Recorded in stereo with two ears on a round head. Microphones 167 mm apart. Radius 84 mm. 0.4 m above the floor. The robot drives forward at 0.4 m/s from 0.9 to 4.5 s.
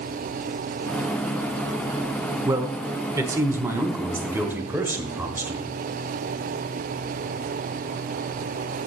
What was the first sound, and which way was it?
A man speaking, 20° right (ahead or behind).